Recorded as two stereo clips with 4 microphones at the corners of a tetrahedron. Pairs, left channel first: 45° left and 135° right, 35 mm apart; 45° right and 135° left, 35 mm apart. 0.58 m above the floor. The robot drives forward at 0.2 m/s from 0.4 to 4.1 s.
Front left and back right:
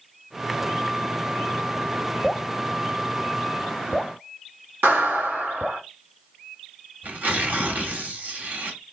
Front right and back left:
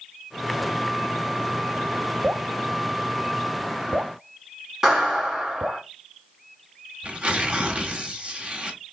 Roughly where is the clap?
Behind right.